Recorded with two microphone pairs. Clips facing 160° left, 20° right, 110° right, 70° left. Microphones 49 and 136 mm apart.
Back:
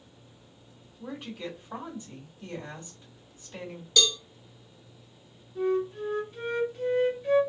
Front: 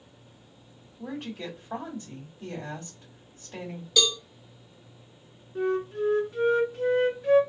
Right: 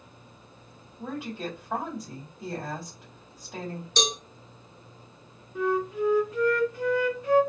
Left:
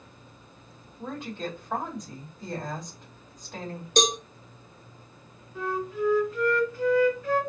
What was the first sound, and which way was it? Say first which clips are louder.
A woman speaking: front 2 dB, even; 25° right.